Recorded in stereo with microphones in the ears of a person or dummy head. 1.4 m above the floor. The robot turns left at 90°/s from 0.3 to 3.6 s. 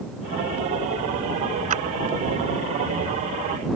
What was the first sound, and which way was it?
A clap, 40° right (ahead or behind).